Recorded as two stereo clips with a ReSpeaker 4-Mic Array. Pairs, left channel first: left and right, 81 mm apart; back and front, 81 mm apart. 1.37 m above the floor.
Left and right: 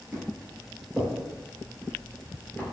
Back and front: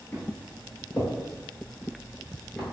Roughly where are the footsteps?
Behind right.